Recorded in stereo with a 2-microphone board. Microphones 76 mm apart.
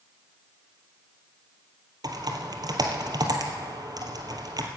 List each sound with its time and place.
2.0 s typing on a keyboard: 60° right (ahead or behind), 1.7 m